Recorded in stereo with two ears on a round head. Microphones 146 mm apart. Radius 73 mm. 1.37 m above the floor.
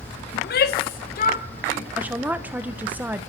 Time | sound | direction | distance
0.3 | a shout | 70° left (ahead or behind) | 1.1 m
2.0 | a woman speaking | 10° right (ahead or behind) | 1.1 m